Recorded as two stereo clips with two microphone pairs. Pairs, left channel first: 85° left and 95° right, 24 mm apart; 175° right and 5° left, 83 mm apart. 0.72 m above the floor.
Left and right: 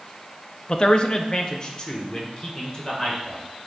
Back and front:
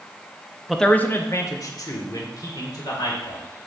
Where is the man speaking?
90° left, 0.5 m; by 3.4 s 150° left, 2.5 m.